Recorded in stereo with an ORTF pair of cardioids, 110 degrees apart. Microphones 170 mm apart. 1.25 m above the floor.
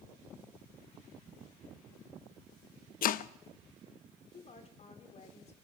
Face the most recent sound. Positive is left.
turn(degrees=40)